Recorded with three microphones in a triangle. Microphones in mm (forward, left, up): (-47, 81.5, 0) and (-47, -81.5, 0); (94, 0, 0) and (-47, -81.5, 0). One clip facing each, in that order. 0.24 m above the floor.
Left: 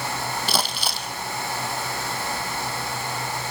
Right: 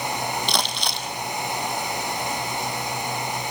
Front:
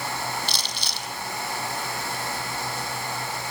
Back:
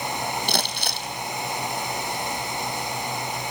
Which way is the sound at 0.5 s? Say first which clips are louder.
Even, back 6 dB; 175° left.